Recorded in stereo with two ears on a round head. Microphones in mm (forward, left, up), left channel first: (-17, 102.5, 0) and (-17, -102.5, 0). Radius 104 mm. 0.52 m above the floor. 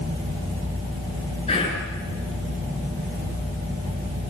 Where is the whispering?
25° left (ahead or behind), 7.5 m.